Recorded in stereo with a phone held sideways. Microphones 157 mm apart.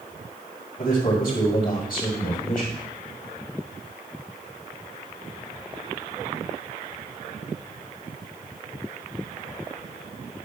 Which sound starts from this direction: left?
A man speaking, at 0.8 s.